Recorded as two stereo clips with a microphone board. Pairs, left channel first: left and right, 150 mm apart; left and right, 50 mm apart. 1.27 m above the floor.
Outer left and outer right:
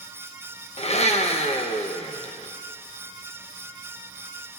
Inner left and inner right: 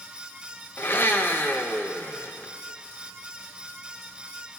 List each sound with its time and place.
0.8 s a blender: 45° left (ahead or behind), 0.6 m